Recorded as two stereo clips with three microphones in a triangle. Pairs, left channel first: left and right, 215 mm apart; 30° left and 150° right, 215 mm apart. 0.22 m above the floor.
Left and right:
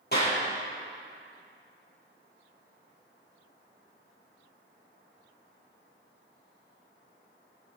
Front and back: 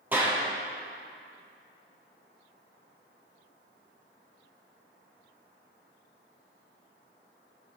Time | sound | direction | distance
0.1 | a clap | 130° left | 5.5 m